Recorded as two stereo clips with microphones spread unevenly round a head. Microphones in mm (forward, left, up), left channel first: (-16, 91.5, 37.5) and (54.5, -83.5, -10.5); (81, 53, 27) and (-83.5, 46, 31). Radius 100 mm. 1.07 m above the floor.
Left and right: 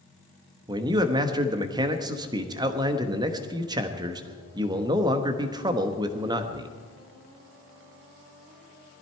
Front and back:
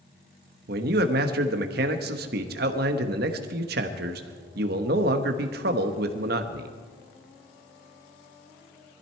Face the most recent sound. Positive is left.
turn(degrees=-135)